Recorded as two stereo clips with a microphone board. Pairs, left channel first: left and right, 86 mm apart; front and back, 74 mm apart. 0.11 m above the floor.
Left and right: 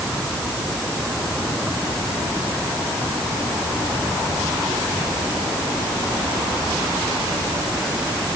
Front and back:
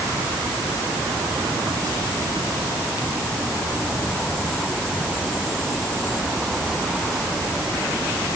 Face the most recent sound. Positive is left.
No sound to turn to.